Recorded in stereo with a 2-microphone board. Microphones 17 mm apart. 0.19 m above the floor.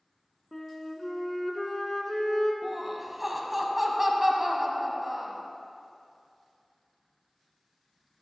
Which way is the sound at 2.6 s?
15° right (ahead or behind).